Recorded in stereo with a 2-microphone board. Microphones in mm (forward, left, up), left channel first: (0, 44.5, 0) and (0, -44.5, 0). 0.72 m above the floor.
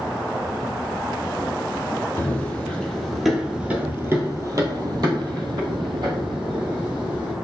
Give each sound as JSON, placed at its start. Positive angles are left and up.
{"t": 2.2, "sound": "running footsteps", "side_deg": 20, "distance_m": 1.2}